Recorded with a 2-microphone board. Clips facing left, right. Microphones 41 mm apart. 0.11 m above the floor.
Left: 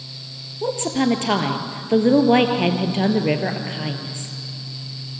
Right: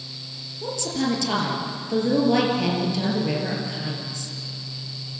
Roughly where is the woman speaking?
Left.